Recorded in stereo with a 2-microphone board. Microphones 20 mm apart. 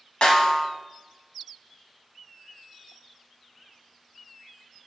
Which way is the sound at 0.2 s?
65° left (ahead or behind).